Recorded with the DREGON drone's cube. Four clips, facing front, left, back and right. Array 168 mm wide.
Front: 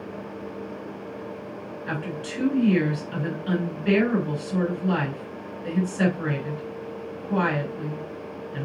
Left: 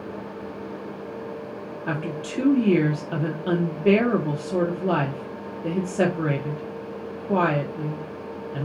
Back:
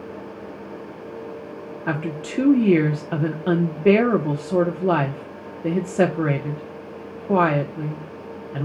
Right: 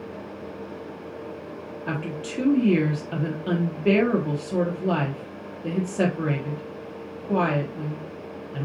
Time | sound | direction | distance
1.9 | a woman speaking | 170° left | 1.4 m